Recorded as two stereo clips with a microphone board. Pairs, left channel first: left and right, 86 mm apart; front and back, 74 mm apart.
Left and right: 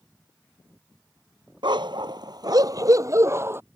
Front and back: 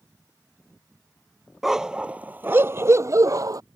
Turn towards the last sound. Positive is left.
turn(degrees=-150)